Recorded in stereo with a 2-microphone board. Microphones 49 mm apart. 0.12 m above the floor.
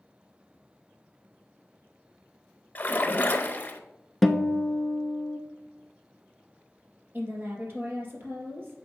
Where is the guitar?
Centre (ahead or behind), 0.6 m.